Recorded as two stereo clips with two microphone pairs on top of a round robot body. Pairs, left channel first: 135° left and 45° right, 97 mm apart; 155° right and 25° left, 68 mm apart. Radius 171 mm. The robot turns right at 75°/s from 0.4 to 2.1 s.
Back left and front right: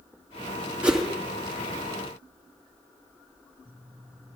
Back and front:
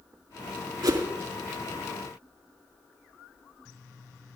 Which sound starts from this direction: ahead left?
A whoosh, at 0.8 s.